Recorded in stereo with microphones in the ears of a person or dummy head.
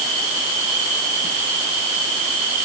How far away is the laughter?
No laughter in this recording.